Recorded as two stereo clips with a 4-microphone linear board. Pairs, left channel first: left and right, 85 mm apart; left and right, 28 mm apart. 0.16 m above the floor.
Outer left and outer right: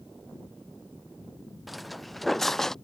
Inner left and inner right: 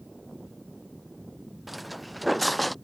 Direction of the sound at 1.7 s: Centre (ahead or behind).